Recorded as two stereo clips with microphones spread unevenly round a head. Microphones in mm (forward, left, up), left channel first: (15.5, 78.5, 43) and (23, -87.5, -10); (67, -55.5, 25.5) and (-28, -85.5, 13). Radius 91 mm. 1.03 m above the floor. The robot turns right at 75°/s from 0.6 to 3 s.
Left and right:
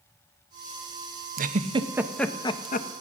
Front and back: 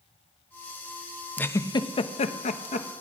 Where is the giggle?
60° right, 0.9 m; by 2.9 s 55° left, 0.9 m.